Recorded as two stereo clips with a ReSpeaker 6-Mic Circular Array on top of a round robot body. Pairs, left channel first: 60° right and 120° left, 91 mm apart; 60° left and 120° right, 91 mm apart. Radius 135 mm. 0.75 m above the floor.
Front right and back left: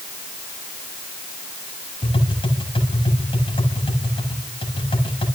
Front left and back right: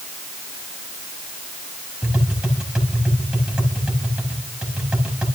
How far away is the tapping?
About 5.5 m.